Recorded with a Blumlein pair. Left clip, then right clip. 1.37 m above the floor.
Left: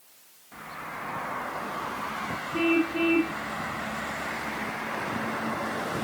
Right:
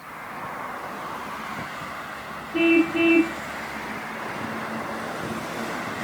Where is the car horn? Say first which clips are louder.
Right 6 dB; 15° right.